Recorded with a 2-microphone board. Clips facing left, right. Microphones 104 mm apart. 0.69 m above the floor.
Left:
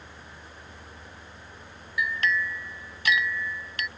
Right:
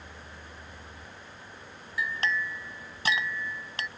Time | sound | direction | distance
2.0 | a clink | 35° right (ahead or behind) | ?